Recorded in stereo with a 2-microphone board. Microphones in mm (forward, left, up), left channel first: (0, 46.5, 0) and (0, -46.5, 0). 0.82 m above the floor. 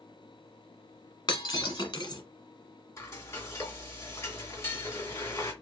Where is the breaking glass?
55° left (ahead or behind), 1.1 m.